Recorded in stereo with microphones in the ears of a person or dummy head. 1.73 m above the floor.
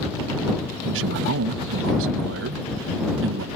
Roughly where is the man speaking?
Right.